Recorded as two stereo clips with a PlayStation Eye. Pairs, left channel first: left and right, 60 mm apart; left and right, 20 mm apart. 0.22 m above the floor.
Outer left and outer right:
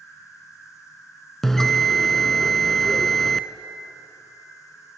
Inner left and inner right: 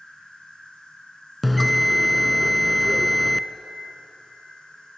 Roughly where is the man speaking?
I don't hear a man speaking.